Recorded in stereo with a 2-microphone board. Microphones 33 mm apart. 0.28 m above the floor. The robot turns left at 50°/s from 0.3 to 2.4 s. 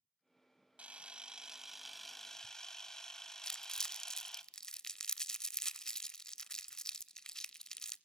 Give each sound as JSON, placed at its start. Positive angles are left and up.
{"t": 0.8, "sound": "a camera shutter", "azimuth_deg": -120, "distance_m": 0.9}
{"t": 3.4, "sound": "crumpling", "side_deg": 20, "distance_m": 0.6}